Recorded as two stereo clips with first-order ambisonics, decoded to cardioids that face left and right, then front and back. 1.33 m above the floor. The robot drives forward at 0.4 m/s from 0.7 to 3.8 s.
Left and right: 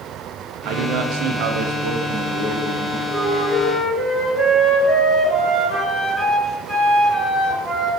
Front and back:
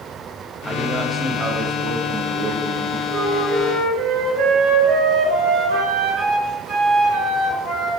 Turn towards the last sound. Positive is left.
turn(degrees=170)